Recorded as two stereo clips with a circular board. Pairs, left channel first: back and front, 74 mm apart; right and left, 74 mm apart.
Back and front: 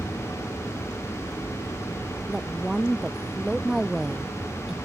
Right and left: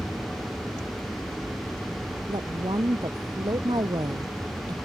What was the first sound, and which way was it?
A woman speaking, 85° left.